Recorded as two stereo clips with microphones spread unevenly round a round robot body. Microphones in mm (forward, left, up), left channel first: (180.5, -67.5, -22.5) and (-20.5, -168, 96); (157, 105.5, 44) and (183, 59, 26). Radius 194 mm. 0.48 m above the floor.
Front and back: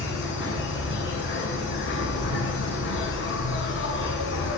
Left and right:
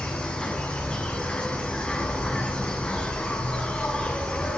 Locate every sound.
0.0 s an insect: 45° left, 7 m